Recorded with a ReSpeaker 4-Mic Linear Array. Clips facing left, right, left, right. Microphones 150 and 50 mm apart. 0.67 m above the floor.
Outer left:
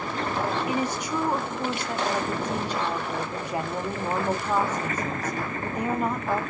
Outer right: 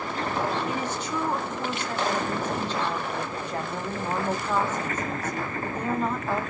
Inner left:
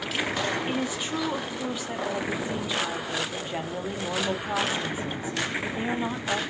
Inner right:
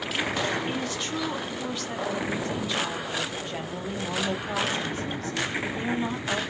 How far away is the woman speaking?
About 0.8 m.